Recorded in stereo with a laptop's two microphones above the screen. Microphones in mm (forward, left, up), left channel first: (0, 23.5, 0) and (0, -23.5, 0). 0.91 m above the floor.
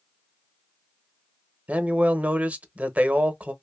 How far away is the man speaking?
About 0.8 m.